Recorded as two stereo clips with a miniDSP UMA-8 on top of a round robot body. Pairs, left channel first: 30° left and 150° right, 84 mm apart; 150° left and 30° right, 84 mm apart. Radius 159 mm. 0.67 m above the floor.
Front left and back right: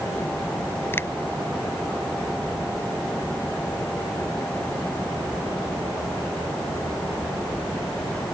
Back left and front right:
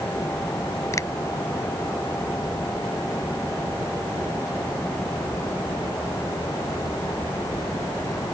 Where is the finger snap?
95° left.